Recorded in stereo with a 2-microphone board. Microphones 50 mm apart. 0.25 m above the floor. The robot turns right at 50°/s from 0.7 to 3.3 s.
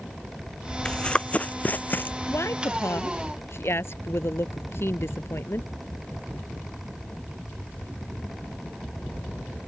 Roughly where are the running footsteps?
Centre.